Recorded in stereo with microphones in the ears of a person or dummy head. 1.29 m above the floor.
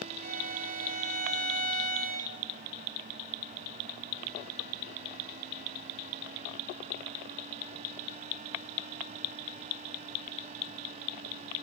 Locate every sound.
0.2 s a violin: 50° right (ahead or behind), 3 m